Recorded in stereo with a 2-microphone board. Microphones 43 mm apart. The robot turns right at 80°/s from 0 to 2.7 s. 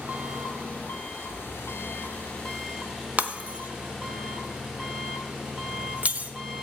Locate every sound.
0.0 s an engine running: 25° right, 1.4 m; by 6.6 s 170° right, 1.4 m
3.2 s breaking glass: 30° right (ahead or behind), 0.7 m